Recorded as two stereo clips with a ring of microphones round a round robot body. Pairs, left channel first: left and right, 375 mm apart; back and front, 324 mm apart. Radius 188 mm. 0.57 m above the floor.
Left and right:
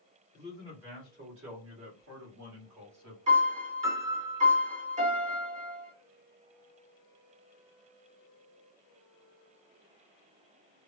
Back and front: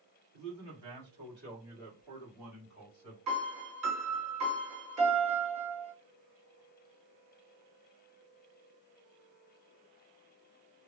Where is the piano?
20° right, 1.7 m.